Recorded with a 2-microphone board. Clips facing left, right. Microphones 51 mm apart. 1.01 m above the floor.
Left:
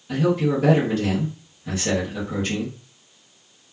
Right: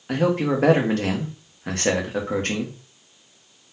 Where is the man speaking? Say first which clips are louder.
Even; 55° right (ahead or behind), 1.1 m.